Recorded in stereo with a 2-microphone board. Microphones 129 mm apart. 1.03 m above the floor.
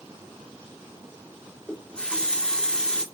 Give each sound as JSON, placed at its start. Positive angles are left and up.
{"t": 1.7, "sound": "a running tap", "side_deg": 10, "distance_m": 1.4}